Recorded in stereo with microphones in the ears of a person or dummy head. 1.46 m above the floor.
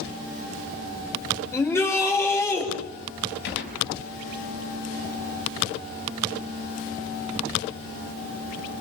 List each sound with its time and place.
1.5 s a shout: 15° left (ahead or behind), 5.5 m
3.4 s a gunshot: 60° left (ahead or behind), 6.5 m